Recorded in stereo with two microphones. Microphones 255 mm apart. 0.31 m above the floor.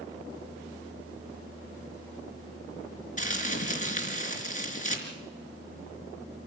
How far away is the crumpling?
About 4 m.